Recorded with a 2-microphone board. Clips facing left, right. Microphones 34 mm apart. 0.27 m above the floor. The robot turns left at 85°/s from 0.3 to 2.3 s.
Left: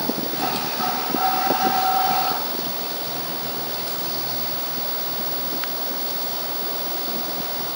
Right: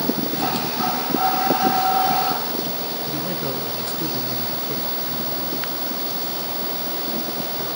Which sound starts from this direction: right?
A man speaking, at 3.1 s.